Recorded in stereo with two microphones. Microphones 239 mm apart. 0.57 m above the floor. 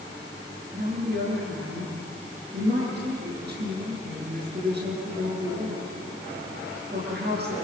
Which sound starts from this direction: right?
A woman speaking, at 0.7 s.